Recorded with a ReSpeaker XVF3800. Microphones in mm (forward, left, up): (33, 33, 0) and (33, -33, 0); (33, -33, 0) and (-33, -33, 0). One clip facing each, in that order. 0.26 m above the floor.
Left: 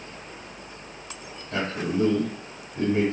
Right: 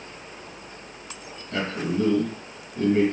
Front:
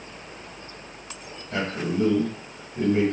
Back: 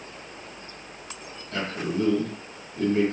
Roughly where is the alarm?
No alarm in this recording.